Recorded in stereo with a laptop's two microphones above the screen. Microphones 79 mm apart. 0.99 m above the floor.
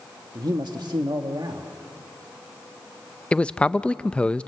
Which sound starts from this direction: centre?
A man speaking, at 3.3 s.